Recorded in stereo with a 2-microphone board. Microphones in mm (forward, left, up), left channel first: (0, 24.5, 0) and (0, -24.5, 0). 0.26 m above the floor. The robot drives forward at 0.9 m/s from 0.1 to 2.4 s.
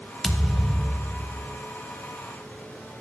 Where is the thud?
Centre (ahead or behind), 0.7 m.